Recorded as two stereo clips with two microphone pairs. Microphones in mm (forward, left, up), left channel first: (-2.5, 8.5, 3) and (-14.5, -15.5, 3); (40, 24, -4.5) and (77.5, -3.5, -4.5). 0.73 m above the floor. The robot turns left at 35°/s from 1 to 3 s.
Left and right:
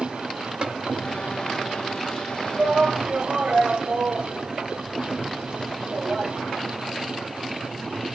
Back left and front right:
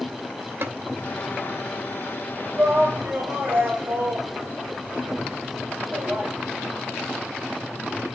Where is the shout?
55° right, 3.5 m; by 6.3 s 70° right, 3.5 m.